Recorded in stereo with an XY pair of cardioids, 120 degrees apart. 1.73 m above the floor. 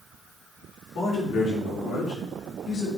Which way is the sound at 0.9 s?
50° left.